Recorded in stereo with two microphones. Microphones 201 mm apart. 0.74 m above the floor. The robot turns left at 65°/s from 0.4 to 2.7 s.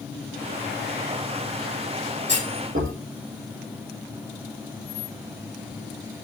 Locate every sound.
2.3 s a clunk: 60° right (ahead or behind), 7.5 m; by 2.9 s 85° right, 7.5 m